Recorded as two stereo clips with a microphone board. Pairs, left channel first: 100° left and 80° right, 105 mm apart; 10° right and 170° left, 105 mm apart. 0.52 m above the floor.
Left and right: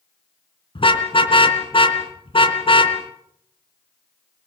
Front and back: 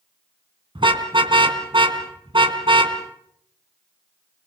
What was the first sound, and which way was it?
A car horn, 130° left.